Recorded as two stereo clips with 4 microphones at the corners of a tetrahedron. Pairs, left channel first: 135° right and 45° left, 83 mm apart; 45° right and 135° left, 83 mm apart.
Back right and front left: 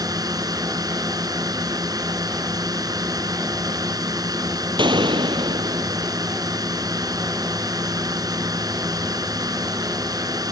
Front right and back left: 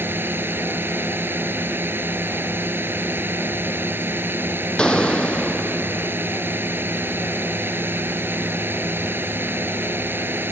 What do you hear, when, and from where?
0.0 s a drone: 75° left
4.8 s a gunshot: 35° left